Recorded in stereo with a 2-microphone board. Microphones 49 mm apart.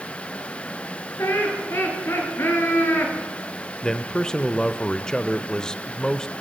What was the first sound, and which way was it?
Laughter, 60° left (ahead or behind).